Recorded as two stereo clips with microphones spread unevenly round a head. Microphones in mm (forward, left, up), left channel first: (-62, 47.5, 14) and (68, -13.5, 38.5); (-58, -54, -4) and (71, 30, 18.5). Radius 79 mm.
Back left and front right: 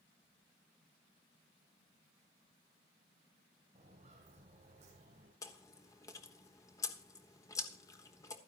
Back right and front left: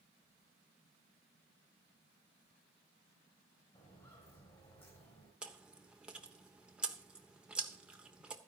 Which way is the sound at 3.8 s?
75° right.